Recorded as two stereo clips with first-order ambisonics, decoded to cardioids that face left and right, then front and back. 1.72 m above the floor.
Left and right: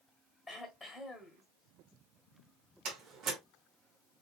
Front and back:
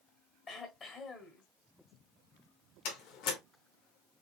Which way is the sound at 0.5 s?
25° left.